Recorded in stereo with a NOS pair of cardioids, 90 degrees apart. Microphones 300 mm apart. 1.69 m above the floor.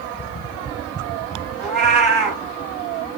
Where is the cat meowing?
35° right, 3 m.